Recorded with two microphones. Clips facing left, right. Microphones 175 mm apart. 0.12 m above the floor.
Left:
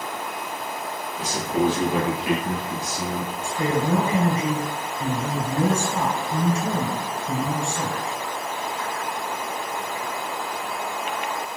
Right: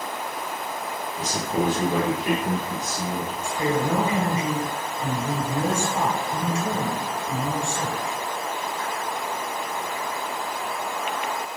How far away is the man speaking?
About 2 m.